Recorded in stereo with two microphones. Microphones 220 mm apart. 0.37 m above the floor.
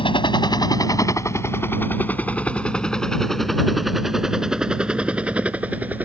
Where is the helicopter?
25° left (ahead or behind); by 6.1 s 5° right (ahead or behind).